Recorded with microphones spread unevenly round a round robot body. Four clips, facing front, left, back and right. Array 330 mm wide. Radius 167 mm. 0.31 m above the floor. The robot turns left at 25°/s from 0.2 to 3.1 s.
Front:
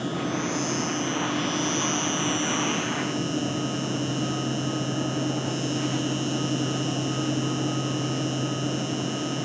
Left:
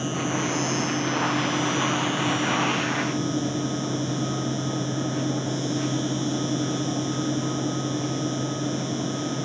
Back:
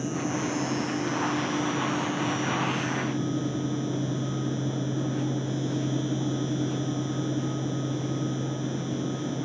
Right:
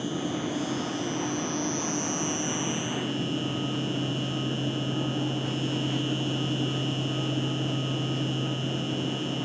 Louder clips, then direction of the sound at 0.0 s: Left 3 dB, front 1 dB; 55° left.